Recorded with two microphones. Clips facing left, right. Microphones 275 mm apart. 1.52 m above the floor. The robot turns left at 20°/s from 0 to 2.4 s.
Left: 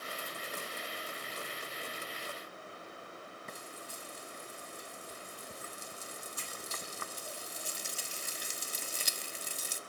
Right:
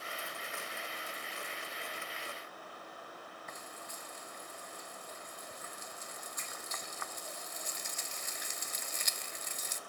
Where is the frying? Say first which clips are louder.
Left 2 dB; 35° left (ahead or behind), 0.5 m.